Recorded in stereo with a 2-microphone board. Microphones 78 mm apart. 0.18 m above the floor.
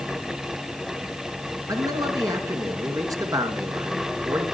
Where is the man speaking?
50° right (ahead or behind), 2 m.